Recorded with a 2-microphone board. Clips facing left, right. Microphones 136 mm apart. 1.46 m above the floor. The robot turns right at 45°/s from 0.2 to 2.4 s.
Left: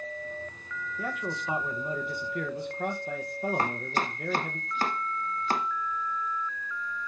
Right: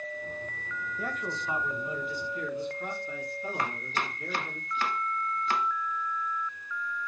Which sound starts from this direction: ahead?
A man speaking, at 1.0 s.